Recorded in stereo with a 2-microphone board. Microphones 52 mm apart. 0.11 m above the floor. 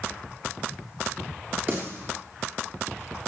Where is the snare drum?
45° right (ahead or behind), 7 m.